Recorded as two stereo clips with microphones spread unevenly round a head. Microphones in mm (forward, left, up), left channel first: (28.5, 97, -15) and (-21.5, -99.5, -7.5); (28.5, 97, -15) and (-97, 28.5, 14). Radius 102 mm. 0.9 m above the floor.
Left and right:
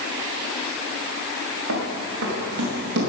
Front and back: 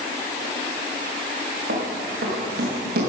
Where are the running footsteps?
130° right, 4.5 m; by 3.1 s 145° right, 5.5 m.